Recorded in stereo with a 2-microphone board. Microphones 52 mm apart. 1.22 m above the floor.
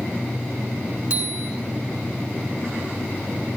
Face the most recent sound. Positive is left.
turn(degrees=-25)  # may be behind; listen again after turning